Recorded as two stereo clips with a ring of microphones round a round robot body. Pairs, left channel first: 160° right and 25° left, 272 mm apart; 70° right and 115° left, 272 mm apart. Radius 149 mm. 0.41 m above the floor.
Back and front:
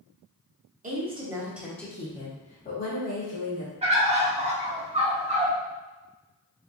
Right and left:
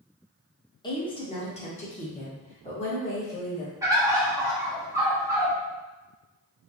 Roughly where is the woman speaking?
Ahead.